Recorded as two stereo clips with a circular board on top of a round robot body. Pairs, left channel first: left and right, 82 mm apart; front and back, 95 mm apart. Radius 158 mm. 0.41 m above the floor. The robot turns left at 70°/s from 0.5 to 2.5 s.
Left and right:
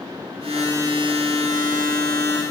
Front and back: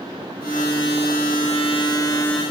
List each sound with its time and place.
Only background noise.